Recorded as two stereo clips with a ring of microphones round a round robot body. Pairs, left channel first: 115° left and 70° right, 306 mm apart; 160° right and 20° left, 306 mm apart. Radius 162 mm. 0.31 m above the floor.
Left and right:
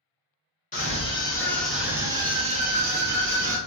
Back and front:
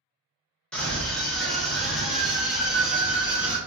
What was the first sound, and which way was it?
A scream, 120° left.